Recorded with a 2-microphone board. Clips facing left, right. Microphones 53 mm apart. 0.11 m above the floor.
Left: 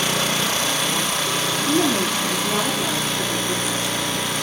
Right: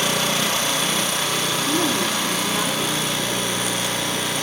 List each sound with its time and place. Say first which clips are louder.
1.7 s a woman speaking: left 3 dB; 30° left (ahead or behind), 8 m